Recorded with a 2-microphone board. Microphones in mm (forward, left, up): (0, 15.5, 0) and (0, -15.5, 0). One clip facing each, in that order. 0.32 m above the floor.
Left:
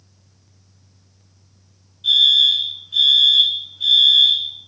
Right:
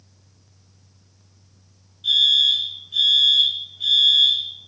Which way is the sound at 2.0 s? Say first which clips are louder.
Left 3 dB; centre (ahead or behind).